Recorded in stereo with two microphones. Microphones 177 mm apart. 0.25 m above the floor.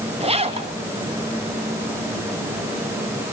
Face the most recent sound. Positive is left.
turn(degrees=-35)  # may be behind; listen again after turning